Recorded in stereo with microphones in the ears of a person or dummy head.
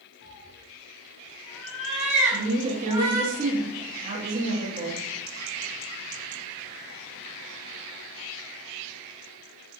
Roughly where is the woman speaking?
Right.